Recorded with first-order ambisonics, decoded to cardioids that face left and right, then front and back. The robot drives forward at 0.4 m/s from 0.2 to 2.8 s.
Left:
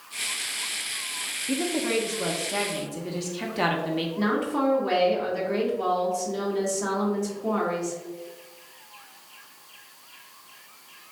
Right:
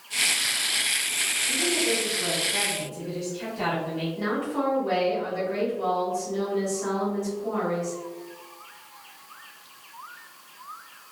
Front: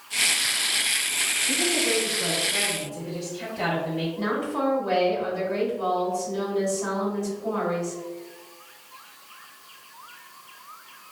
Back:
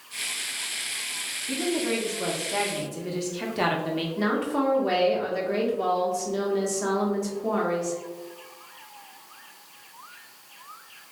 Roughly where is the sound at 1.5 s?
Left.